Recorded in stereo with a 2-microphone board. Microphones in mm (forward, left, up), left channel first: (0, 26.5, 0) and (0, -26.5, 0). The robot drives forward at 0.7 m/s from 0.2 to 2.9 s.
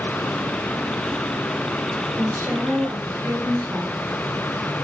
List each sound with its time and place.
2.2 s a woman speaking: 85° right, 8 m